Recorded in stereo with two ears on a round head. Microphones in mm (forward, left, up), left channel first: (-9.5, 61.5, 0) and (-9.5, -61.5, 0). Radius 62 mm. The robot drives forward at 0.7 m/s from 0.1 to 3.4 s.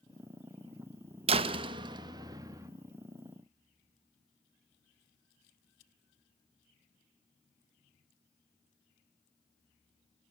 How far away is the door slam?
About 1.2 m.